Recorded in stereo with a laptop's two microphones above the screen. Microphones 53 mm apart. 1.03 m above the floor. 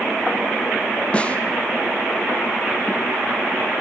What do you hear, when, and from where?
1.1 s a snare drum: 25° left (ahead or behind), 0.7 m